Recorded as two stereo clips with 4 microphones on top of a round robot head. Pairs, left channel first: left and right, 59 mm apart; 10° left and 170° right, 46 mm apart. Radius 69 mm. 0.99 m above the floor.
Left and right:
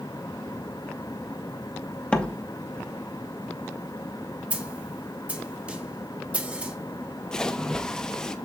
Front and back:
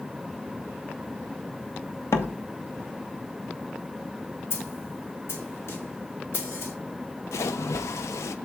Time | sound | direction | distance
2.1 | a door slam | 20° left | 1.1 m
4.5 | a snare drum | 25° right | 1.6 m
7.3 | a splash | 10° left | 0.7 m